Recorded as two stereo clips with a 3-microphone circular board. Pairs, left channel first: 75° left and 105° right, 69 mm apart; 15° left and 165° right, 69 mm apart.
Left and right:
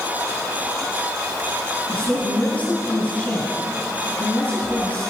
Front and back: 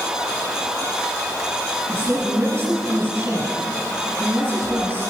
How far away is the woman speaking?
About 8 m.